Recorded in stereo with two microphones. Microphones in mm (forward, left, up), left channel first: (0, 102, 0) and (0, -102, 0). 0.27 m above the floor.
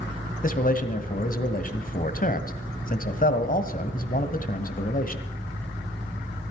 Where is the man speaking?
45° left (ahead or behind), 1.5 m.